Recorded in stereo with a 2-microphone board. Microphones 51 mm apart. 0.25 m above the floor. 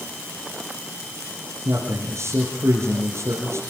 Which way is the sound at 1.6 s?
60° right (ahead or behind).